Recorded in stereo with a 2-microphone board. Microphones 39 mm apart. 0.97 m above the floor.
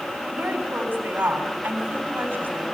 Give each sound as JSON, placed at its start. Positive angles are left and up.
{"t": 0.3, "sound": "a woman speaking", "side_deg": -65, "distance_m": 7.5}